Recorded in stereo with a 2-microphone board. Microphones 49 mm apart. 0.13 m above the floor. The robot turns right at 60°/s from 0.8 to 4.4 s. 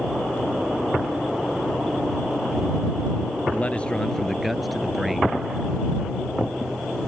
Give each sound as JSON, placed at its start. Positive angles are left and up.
{"t": 3.5, "sound": "a man speaking", "azimuth_deg": 130}